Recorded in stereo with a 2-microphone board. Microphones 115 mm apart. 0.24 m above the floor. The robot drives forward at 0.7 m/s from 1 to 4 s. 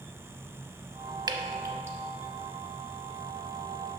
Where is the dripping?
35° right (ahead or behind), 0.6 m; by 2.0 s 20° right (ahead or behind), 1.0 m.